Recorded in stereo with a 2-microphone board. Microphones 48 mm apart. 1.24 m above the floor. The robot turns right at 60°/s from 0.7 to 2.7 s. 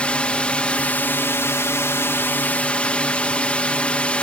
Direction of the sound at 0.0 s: 30° left.